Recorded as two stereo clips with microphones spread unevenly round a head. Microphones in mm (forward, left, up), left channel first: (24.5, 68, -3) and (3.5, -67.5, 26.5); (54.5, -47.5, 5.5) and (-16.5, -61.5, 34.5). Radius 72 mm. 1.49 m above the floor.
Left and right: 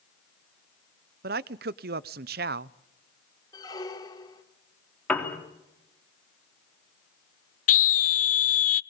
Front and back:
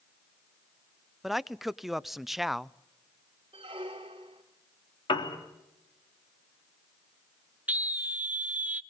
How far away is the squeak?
About 3.5 m.